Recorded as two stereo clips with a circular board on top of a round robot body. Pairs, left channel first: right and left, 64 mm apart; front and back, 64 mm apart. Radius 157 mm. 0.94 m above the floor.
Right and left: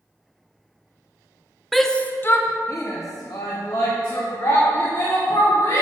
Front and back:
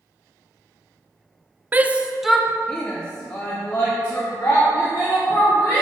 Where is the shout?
Straight behind, 0.8 m; by 5.8 s 65° right, 3.5 m.